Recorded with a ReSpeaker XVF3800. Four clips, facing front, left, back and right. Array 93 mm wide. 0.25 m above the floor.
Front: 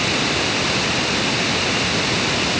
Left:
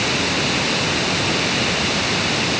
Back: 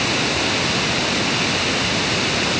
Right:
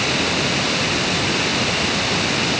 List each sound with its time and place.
Only background noise.